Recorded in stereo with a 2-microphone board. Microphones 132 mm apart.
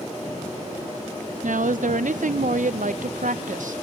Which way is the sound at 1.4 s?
75° right (ahead or behind).